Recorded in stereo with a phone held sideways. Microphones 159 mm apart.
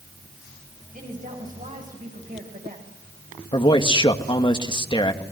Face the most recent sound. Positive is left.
turn(degrees=30)  # may be behind; listen again after turning